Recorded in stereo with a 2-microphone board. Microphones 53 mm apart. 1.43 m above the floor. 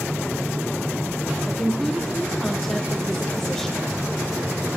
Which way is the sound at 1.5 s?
5° left (ahead or behind).